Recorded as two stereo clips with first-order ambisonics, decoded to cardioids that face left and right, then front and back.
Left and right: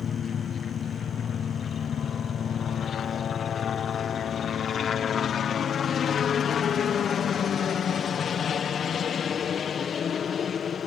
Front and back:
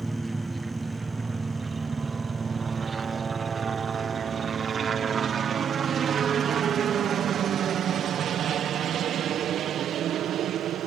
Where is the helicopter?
110° left; by 10.9 s 145° left.